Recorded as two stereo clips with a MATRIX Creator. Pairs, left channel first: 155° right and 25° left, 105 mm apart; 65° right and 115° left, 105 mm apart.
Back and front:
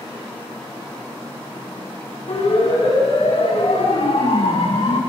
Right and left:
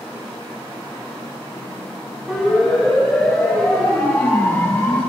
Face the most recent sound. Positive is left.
turn(degrees=-140)